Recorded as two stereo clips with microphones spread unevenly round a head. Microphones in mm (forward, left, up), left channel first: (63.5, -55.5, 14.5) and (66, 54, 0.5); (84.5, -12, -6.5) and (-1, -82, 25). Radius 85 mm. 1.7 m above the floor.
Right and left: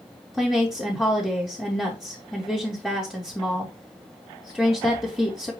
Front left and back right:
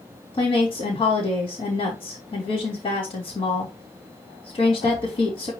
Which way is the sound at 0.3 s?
5° right.